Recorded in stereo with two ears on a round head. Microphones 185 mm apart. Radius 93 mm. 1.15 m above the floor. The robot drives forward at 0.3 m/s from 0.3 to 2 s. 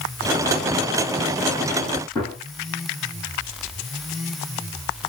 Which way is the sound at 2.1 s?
15° left (ahead or behind).